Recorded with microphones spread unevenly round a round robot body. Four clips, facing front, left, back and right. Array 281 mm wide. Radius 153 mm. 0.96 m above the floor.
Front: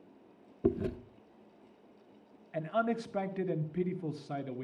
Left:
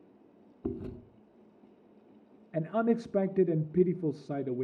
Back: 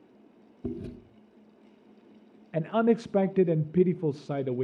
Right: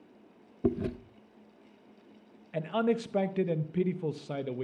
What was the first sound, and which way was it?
Chewing, 55° right.